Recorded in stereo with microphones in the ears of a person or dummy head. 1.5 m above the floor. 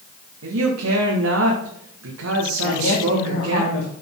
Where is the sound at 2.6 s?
75° left (ahead or behind), 2.5 m.